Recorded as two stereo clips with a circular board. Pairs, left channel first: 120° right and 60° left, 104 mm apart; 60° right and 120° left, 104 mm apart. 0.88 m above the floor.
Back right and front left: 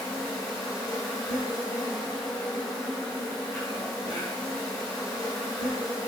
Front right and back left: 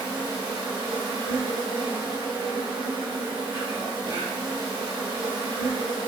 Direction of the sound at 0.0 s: 160° left.